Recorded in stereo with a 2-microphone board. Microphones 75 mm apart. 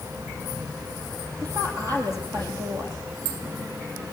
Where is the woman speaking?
50° right (ahead or behind), 5.5 m.